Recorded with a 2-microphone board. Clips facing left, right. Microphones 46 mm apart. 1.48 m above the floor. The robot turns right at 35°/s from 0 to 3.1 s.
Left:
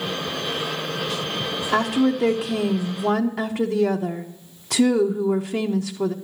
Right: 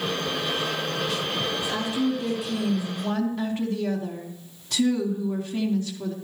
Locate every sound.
1.7 s a woman speaking: 55° left, 0.8 m; by 6.1 s 105° left, 0.8 m